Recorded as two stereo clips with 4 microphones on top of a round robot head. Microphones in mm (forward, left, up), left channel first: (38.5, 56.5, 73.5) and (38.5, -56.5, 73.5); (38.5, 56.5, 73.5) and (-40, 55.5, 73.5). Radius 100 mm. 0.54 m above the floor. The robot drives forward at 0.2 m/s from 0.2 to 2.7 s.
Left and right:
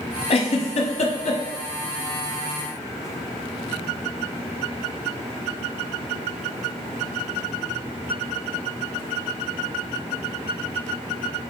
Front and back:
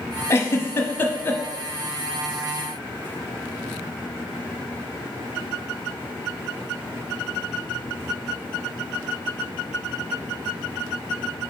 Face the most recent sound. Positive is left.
turn(degrees=85)